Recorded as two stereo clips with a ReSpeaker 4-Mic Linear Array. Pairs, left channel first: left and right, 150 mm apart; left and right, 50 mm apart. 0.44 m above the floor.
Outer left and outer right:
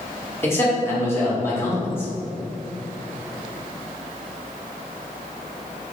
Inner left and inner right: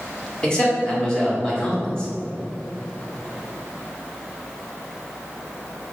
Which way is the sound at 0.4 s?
15° left (ahead or behind).